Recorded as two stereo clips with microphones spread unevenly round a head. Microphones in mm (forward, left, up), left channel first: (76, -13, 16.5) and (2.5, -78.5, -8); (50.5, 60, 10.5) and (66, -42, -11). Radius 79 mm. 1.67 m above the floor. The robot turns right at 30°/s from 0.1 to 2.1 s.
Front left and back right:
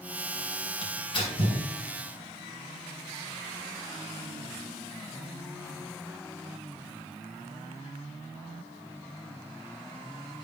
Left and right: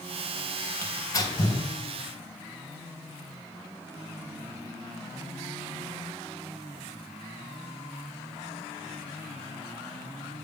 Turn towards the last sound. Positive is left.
turn(degrees=80)